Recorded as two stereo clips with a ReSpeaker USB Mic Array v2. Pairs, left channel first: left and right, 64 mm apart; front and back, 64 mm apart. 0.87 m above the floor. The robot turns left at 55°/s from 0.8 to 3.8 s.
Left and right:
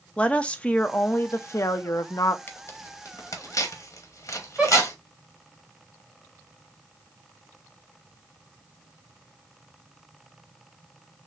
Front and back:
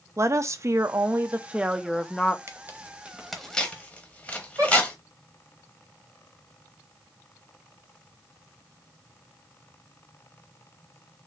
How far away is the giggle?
About 2.5 m.